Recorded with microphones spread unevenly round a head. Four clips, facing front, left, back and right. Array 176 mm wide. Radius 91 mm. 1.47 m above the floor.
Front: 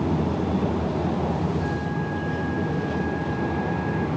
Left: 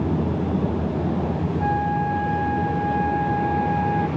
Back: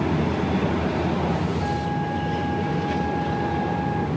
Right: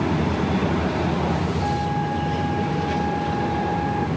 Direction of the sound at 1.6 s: 105° left.